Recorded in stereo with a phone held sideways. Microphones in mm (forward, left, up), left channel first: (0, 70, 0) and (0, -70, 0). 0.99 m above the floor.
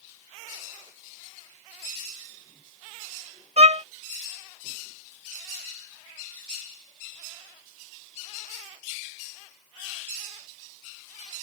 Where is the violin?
50° right (ahead or behind).